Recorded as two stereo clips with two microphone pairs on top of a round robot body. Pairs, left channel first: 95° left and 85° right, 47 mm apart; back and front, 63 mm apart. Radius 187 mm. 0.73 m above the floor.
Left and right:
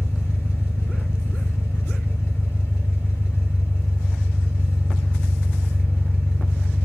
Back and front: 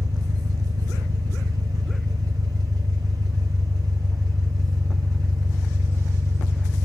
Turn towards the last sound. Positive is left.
turn(degrees=45)